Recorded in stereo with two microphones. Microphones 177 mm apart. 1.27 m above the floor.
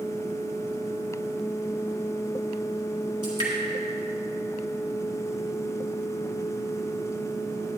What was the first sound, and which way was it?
Dripping, 25° right (ahead or behind).